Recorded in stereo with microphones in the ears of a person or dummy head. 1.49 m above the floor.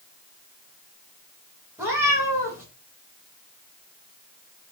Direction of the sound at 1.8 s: 5° right (ahead or behind).